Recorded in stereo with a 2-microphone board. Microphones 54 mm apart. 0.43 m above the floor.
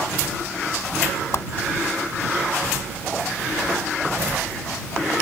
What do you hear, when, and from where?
1.3 s a whoosh: 60° left (ahead or behind)